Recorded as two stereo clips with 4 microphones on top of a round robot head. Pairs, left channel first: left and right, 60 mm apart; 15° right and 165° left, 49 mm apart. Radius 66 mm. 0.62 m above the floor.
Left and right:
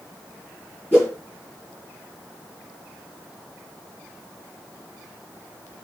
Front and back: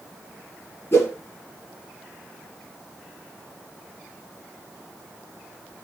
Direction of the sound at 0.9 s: 20° left.